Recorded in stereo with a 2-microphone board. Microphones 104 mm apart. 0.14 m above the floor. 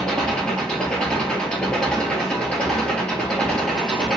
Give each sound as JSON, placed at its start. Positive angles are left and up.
{"t": 0.0, "sound": "an engine running", "side_deg": 10, "distance_m": 1.5}